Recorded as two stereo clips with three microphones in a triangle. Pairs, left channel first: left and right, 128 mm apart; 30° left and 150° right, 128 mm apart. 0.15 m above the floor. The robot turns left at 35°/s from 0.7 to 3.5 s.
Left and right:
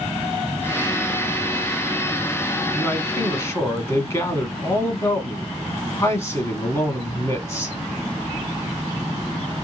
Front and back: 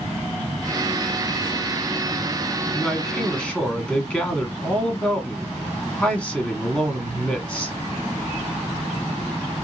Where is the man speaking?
120° left, 1.2 m; by 7.8 s 95° left, 1.2 m.